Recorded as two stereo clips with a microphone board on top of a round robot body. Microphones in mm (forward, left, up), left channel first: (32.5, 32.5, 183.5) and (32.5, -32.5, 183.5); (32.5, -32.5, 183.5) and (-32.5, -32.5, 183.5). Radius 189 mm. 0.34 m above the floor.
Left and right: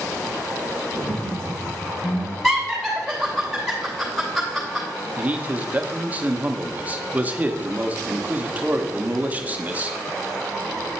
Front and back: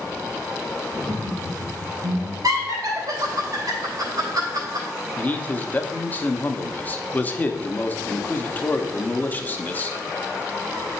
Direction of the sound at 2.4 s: Straight behind.